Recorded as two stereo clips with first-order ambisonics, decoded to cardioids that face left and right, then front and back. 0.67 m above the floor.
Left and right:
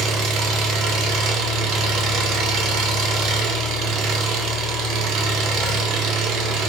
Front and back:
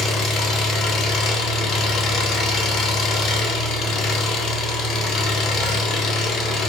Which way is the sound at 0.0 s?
55° right.